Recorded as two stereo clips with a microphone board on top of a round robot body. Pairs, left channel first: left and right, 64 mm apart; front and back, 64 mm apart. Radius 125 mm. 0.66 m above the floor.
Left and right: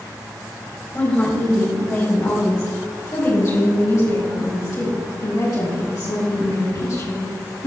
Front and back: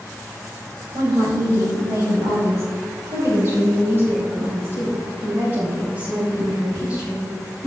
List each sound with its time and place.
0.9 s a woman speaking: 155° left, 4 m; by 7.7 s 105° left, 7.5 m